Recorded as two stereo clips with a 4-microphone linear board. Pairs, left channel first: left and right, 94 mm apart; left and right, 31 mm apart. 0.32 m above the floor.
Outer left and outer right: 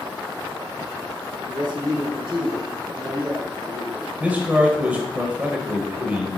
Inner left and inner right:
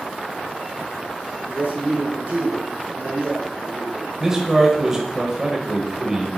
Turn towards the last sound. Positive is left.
turn(degrees=-15)  # may be behind; listen again after turning